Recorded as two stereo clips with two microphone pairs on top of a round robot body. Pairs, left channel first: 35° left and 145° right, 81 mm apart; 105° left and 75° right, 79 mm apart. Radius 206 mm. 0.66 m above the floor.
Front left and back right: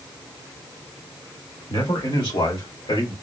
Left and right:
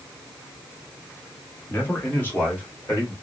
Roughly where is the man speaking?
Ahead left.